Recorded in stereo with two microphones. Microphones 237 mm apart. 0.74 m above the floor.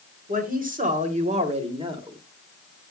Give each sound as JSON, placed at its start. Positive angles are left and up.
{"t": 0.3, "sound": "a woman speaking", "side_deg": -35, "distance_m": 2.5}